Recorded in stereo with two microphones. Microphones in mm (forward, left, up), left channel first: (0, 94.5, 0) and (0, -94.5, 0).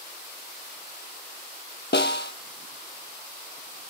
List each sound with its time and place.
1.9 s a snare drum: 75° left (ahead or behind), 0.7 m